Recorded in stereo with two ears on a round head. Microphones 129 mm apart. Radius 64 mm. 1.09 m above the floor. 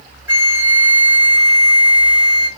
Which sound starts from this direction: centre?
A flute, at 0.3 s.